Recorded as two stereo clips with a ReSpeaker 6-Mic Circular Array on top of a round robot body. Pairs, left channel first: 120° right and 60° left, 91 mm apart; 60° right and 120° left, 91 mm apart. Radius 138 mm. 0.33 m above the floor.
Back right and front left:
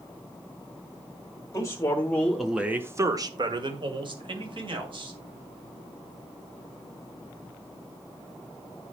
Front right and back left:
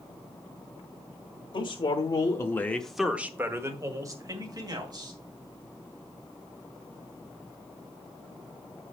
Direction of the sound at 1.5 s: 70° right.